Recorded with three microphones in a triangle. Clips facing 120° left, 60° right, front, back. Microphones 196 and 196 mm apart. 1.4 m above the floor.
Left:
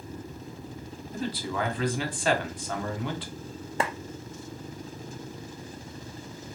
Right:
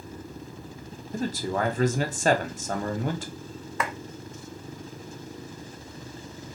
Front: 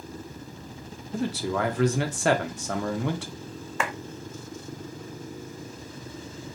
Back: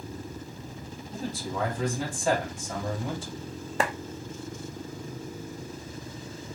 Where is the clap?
155° left, 0.5 m.